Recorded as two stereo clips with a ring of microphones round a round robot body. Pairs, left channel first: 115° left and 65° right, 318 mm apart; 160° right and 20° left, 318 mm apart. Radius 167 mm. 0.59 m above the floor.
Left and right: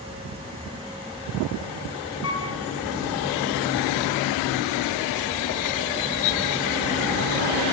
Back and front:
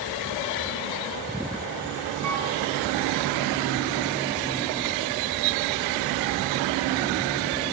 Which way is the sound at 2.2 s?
65° left.